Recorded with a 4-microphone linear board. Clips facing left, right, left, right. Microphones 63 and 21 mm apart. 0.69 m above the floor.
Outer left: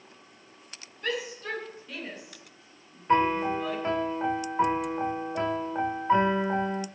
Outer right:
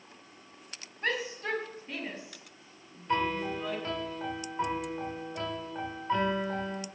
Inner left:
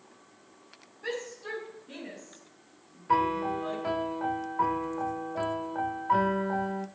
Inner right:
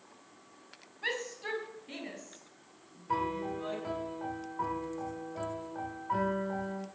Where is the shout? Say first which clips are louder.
Even, even; 40° right (ahead or behind), 5 m; by 3.8 s 20° right (ahead or behind), 6.5 m.